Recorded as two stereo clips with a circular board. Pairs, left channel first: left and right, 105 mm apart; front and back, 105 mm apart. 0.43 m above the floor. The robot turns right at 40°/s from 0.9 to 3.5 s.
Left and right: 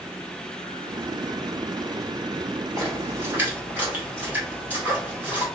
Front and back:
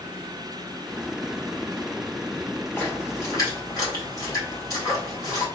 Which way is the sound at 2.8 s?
60° right.